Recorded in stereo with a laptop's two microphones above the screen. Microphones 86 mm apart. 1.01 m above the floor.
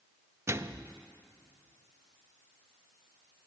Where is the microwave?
30° right (ahead or behind), 0.6 m.